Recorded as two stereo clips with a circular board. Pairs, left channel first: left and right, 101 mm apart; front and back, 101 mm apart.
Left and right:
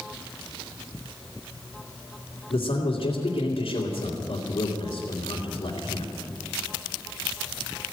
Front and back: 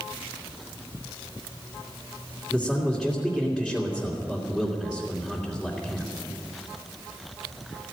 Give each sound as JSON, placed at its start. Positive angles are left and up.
{"t": 2.5, "sound": "a man speaking", "azimuth_deg": 95, "distance_m": 2.5}